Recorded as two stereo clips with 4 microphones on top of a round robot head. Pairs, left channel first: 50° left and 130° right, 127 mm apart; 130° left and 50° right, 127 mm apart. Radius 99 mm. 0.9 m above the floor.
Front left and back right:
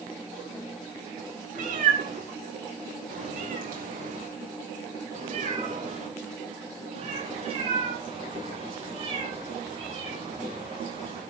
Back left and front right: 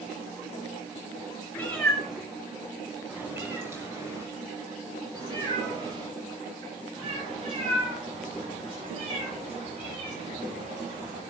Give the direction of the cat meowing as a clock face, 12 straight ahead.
5 o'clock.